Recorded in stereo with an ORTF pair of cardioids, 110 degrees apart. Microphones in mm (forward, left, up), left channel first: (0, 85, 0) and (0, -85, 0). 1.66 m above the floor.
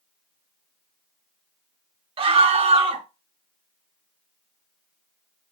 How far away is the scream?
About 1.6 m.